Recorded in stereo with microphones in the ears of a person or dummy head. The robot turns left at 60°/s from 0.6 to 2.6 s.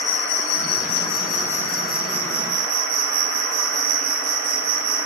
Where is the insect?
70° left, 0.9 m; by 5.1 s 50° right, 0.9 m.